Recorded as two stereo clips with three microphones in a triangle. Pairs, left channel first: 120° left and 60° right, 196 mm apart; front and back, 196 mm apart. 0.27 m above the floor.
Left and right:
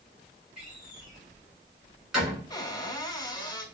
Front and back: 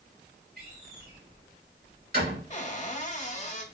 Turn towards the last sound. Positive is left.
turn(degrees=50)